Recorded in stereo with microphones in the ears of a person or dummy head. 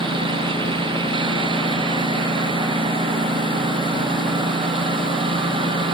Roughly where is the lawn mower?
Right.